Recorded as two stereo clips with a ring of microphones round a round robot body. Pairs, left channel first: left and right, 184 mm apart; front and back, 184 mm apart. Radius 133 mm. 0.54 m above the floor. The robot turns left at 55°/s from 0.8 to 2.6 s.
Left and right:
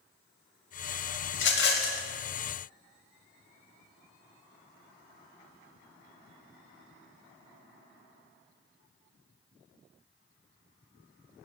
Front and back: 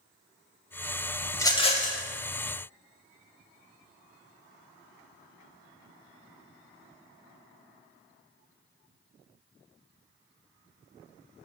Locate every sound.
1.3 s a rattle: 80° left, 0.7 m; by 2.0 s 40° left, 0.7 m